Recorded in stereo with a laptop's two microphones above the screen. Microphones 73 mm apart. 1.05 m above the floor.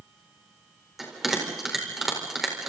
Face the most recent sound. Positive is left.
turn(degrees=-5)  # may be behind; listen again after turning